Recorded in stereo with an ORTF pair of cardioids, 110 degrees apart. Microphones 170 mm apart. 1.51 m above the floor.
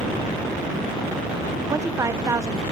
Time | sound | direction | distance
1.7 | a woman speaking | 20° right | 1.1 m